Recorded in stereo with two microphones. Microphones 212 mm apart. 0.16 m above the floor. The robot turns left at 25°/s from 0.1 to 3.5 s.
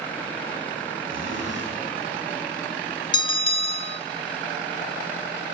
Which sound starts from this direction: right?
A zipper, at 1.0 s.